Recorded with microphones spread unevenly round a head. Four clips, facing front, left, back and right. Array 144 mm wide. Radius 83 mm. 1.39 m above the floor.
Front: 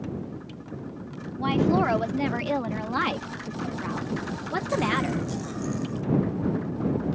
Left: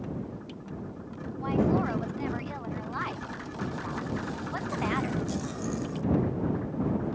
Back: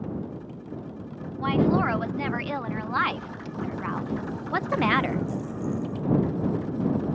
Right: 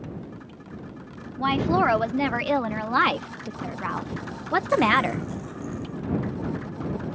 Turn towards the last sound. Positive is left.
turn(degrees=-120)